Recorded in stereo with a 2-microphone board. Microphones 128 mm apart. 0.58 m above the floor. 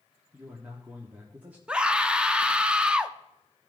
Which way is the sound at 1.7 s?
10° right (ahead or behind).